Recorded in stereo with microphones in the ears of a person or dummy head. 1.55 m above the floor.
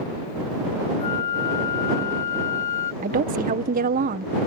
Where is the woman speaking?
45° right (ahead or behind).